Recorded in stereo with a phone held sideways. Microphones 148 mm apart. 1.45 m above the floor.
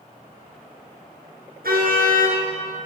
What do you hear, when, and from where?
1.6 s a car horn: 80° right, 8 m